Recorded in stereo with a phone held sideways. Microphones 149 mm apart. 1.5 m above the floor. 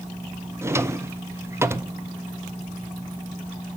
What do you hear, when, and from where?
0.6 s a drawer: 20° right (ahead or behind), 0.6 m